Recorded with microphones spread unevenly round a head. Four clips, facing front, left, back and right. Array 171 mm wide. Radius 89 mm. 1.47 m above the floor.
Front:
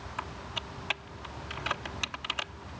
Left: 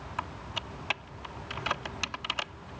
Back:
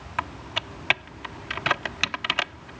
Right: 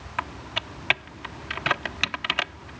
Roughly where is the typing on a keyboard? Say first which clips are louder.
Right 6 dB, back 9 dB; behind right.